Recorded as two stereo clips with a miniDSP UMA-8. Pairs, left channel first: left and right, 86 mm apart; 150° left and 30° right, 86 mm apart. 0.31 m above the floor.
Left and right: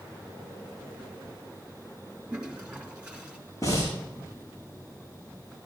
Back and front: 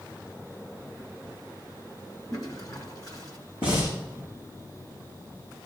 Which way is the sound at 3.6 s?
140° left.